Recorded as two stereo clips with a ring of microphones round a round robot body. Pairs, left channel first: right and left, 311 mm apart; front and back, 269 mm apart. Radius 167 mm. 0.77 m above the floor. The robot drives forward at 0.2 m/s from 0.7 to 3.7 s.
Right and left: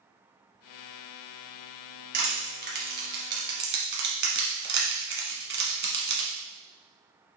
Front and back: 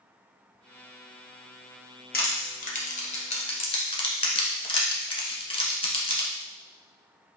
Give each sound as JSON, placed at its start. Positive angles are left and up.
{"t": 2.1, "sound": "crushing", "azimuth_deg": 45, "distance_m": 1.2}